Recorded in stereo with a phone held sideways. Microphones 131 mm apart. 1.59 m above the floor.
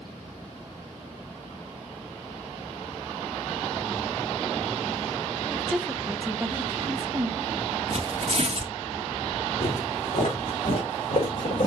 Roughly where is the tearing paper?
Right.